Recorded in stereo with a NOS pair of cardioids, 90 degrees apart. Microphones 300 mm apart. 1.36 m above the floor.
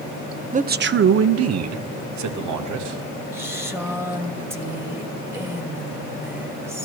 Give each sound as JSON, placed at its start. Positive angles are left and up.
{"t": 0.5, "sound": "a man speaking", "azimuth_deg": -25, "distance_m": 0.7}
{"t": 3.3, "sound": "a woman speaking", "azimuth_deg": -10, "distance_m": 1.8}